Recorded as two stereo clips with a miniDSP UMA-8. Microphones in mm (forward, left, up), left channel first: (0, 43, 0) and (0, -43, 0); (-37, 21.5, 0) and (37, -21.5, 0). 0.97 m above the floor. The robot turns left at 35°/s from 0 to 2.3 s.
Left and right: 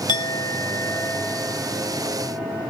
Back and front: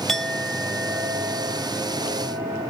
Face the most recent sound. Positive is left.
turn(degrees=-15)